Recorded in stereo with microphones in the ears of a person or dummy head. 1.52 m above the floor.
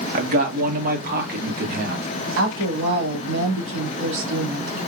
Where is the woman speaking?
85° right, 2.5 m.